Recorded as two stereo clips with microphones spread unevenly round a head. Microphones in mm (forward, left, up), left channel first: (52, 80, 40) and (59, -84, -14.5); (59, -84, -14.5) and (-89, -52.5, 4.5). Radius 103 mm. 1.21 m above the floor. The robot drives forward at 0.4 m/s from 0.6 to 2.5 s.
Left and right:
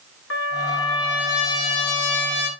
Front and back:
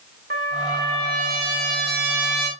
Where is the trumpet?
115° left, 2 m; by 2.5 s 130° left, 2.5 m.